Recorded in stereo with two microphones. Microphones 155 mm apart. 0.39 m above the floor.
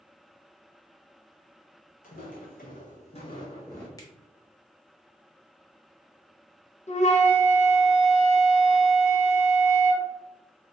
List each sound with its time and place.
2.0 s footsteps: 60° left (ahead or behind), 1.1 m; by 3.9 s 15° left (ahead or behind), 1.3 m
4.0 s a finger snap: 25° left (ahead or behind), 0.7 m
6.9 s a flute: 45° left (ahead or behind), 0.5 m